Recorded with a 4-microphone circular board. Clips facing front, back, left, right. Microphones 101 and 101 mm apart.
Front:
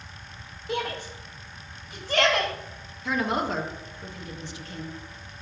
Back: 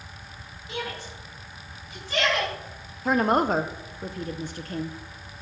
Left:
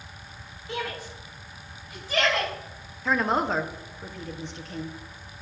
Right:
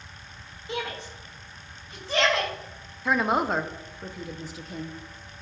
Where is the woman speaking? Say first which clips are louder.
Back 5 dB, even; 175° right, 0.5 m.